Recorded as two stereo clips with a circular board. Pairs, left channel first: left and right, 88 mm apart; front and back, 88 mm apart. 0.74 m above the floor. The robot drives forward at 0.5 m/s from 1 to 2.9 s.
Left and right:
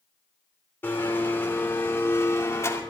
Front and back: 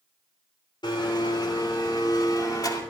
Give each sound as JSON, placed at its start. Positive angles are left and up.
{"t": 0.8, "sound": "a blender", "azimuth_deg": 25, "distance_m": 3.0}